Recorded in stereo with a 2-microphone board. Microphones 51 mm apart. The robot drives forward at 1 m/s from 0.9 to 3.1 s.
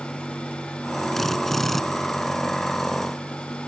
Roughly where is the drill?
Centre.